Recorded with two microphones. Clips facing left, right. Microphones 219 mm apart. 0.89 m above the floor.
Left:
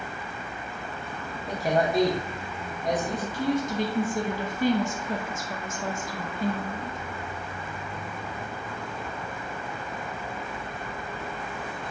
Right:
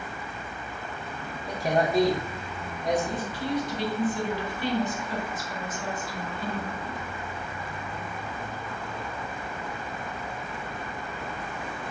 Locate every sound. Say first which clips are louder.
1.5 s a man speaking: even; centre (ahead or behind), 0.6 m
3.3 s a woman speaking: left 5 dB; 45° left (ahead or behind), 0.5 m